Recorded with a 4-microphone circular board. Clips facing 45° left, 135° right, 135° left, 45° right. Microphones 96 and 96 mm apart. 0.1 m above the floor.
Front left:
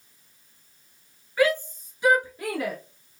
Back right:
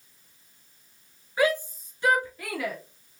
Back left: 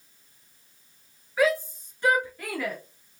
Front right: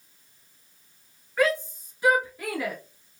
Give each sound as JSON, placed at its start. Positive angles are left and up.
{"t": 1.4, "sound": "a shout", "azimuth_deg": -145, "distance_m": 1.3}